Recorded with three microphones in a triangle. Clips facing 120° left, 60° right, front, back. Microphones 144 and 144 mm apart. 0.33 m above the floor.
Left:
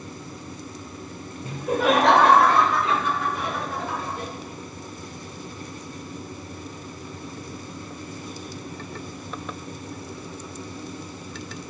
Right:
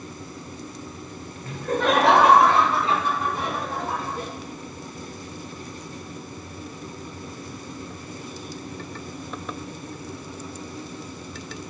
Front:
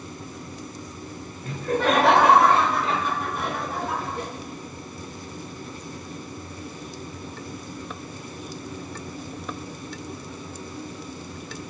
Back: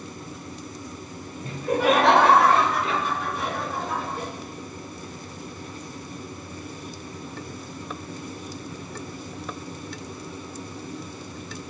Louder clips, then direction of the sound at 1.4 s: Left 1 dB, back 1 dB; 165° left.